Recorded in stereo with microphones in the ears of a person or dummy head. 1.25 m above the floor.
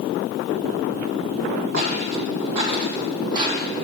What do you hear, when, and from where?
1.7 s footsteps: 50° right (ahead or behind), 2 m; by 3.7 s 25° right (ahead or behind), 1.9 m